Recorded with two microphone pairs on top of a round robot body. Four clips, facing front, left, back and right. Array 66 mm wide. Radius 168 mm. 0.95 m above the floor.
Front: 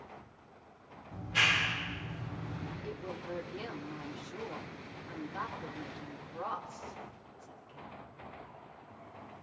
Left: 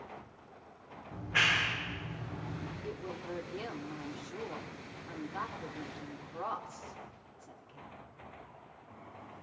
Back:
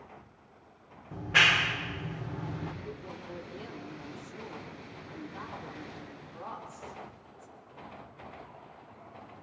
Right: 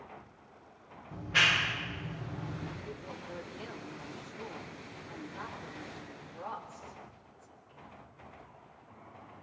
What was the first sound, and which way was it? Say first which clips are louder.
A clap: right 2 dB, back 6 dB; 170° right.